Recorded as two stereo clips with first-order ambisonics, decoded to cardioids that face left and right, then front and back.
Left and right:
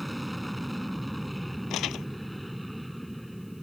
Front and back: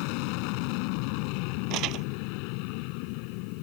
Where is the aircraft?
5° right.